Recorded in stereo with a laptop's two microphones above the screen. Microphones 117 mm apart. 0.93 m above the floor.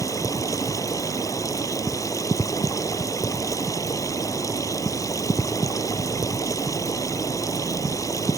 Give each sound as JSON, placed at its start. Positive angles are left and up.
{"t": 0.0, "sound": "running water", "side_deg": 30}